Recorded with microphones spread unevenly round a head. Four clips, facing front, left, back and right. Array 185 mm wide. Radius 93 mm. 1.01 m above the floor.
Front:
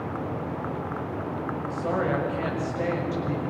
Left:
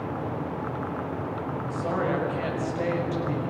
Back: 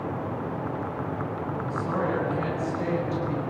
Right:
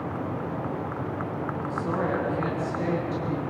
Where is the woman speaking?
35° left, 6 m.